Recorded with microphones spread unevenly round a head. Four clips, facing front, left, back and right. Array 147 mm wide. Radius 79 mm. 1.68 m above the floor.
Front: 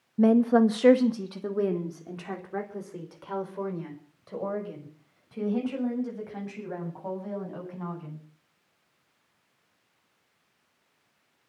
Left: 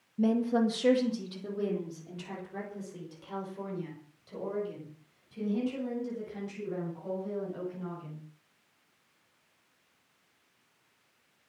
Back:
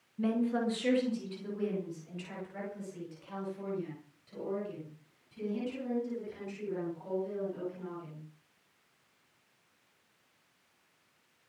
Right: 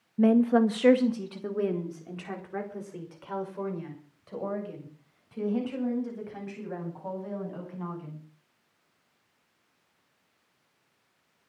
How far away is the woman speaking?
About 1.4 m.